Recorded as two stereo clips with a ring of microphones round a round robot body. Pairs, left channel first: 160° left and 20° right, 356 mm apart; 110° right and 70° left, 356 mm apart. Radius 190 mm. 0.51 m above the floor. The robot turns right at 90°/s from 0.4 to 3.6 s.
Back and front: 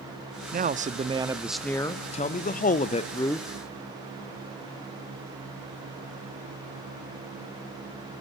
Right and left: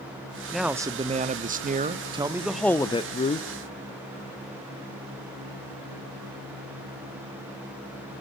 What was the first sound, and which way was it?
A man speaking, 25° right.